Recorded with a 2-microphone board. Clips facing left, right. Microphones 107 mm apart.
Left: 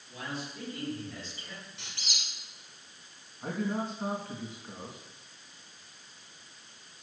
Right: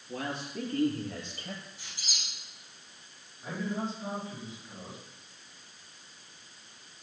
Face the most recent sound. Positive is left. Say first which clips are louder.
# left 2 dB
turn(degrees=60)  # may be behind; listen again after turning